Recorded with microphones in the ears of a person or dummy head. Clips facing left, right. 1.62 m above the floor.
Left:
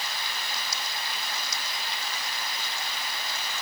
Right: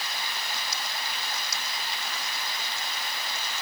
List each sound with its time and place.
Only background noise.